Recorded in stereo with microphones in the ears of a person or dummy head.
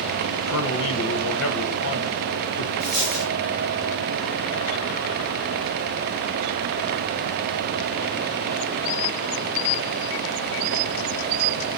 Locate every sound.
0.5 s a man speaking: 70° left (ahead or behind), 0.8 m
2.8 s a dropped coin: 40° right (ahead or behind), 2.5 m